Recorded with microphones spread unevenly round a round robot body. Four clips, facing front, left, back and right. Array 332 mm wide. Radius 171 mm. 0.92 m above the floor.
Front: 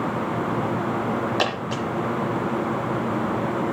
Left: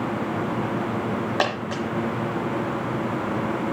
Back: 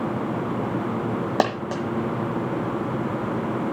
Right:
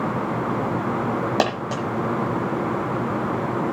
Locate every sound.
1.4 s a dropped coin: 155° right, 1.4 m